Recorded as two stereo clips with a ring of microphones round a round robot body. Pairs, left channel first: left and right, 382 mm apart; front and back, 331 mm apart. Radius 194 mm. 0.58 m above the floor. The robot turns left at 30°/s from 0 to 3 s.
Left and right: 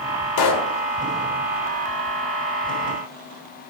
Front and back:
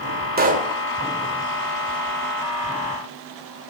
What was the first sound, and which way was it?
A pop, 120° left.